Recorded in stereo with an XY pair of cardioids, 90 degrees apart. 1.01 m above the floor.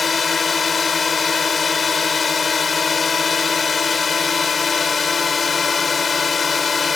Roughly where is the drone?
Ahead left.